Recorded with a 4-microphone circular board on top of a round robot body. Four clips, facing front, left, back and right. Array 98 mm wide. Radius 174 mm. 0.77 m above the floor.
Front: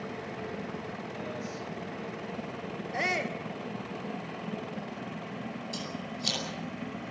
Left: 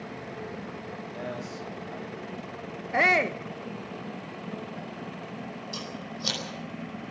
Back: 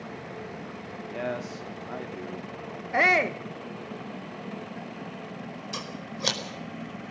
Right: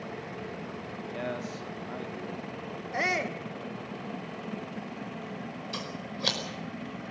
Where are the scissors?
150° right, 5 m.